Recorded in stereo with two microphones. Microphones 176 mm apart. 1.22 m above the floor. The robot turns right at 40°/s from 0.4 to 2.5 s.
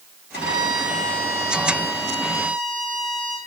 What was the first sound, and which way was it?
A violin, 90° right.